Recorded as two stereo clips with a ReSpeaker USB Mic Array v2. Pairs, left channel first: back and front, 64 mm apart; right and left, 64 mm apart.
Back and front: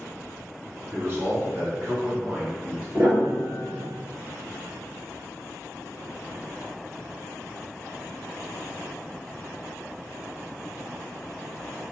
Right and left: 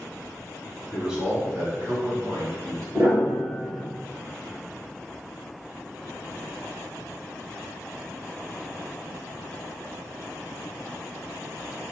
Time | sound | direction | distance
0.9 | a man speaking | 10° left | 1.4 m
2.9 | a piano | 55° left | 1.8 m